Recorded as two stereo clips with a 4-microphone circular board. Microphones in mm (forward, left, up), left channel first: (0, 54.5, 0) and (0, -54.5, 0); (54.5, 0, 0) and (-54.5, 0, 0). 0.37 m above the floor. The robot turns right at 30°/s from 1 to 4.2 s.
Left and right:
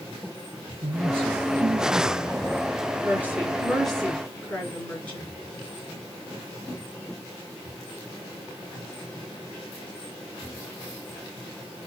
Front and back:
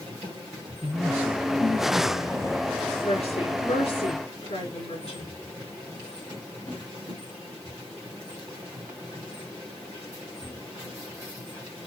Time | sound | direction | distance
0.8 | a man speaking | 65° right | 4.5 m
3.0 | a woman speaking | 20° right | 5.5 m